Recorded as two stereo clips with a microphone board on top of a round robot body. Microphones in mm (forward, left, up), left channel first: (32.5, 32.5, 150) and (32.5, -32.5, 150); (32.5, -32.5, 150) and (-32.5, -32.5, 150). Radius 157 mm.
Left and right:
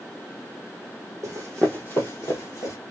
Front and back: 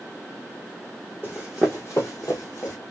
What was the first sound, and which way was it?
Running footsteps, 125° right.